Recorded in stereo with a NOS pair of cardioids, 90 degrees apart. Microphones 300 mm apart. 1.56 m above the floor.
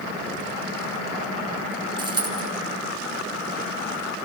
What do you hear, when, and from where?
2.0 s a dropped coin: 15° right, 5 m